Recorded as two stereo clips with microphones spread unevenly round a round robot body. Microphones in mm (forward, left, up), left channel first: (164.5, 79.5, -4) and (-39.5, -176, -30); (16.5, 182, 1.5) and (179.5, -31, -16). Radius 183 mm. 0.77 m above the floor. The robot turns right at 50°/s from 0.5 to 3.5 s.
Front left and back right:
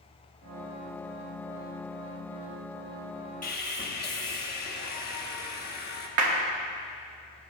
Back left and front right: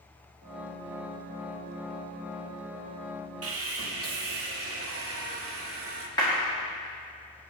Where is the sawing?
15° right, 1.5 m.